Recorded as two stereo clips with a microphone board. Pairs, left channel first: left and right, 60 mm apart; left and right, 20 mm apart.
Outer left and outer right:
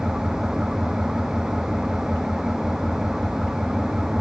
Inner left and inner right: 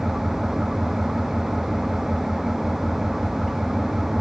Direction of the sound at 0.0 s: 10° right (ahead or behind).